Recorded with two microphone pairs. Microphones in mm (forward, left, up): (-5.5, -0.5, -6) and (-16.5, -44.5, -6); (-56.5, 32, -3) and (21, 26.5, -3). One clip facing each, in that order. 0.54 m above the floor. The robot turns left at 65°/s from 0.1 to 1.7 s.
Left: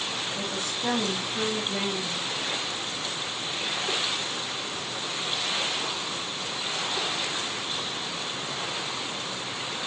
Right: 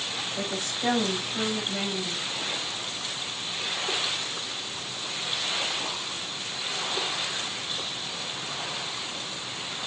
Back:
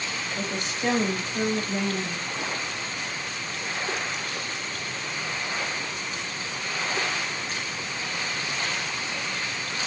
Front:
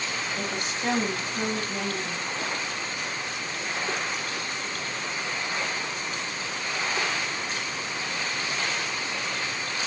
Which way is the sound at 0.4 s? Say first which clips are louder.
Even, back 1 dB; 110° right.